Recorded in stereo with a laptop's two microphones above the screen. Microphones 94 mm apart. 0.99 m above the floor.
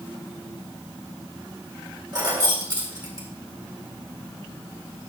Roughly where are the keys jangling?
Right.